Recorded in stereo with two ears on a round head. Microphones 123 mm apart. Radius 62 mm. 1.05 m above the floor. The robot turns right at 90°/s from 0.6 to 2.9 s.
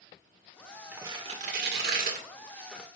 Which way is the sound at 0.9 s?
10° right (ahead or behind).